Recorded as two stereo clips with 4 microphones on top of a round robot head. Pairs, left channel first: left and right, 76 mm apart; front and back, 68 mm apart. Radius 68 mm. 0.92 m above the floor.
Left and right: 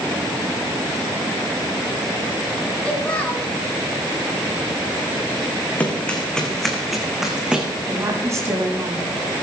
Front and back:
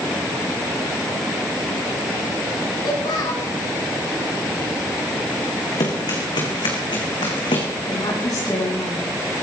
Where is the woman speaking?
40° right, 8 m.